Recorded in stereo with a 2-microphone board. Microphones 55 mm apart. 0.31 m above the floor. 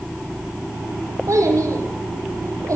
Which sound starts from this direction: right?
A child speaking, at 1.3 s.